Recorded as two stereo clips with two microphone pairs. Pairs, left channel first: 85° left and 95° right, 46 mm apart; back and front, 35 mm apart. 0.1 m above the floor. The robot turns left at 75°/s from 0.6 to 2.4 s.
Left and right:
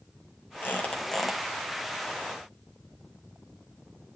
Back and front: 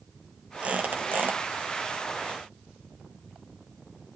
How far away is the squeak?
About 1.7 m.